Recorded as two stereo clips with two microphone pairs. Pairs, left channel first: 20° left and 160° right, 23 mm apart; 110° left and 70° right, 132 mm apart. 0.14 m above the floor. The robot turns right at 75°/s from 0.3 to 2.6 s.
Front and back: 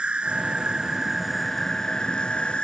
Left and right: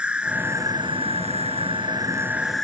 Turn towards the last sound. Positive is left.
turn(degrees=20)